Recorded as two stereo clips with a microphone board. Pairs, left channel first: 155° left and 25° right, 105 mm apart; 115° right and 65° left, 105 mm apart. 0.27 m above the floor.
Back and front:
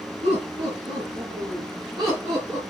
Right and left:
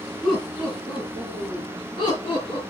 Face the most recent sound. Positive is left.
turn(degrees=-85)